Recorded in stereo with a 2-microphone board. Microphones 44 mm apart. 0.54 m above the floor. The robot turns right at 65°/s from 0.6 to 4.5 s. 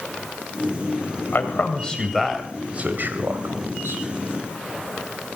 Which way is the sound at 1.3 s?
55° left (ahead or behind).